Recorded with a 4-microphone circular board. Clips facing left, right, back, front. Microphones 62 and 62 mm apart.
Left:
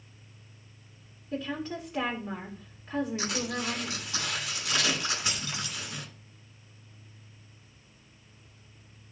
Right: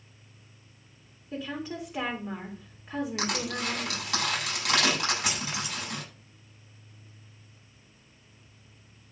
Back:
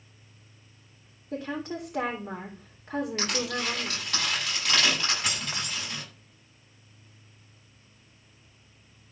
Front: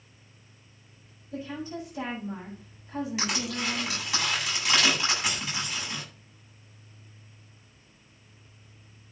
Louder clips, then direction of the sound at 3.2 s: Right 1 dB, back 1 dB; 85° right.